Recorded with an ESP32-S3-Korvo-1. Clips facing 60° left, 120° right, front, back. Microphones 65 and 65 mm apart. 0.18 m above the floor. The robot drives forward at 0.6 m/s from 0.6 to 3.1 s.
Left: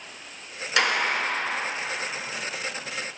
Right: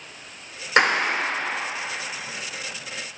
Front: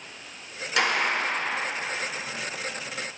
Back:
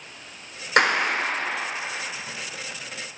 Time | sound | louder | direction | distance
0.8 | a clap | right 4 dB, back 4 dB | 160° right | 1.4 m